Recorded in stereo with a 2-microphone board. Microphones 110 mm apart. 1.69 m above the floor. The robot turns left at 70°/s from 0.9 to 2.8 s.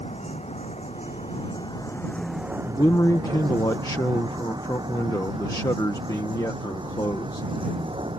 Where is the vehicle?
75° left (ahead or behind); by 8.2 s 50° right (ahead or behind).